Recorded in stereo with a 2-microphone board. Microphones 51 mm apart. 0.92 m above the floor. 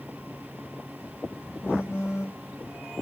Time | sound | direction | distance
1.6 | a phone buzzing | 65° left (ahead or behind) | 3 m